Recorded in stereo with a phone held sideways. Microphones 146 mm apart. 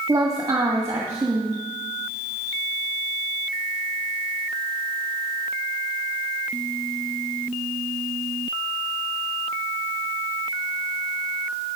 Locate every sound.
0.1 s a woman speaking: 25° right (ahead or behind), 1.8 m